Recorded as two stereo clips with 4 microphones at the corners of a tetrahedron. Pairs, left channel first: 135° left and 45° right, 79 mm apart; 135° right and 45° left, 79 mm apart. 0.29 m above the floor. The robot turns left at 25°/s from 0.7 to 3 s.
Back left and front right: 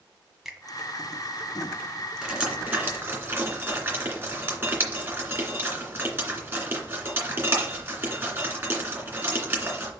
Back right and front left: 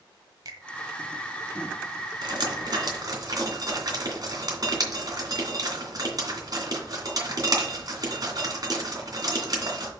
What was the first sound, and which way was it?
A finger snap, 40° left.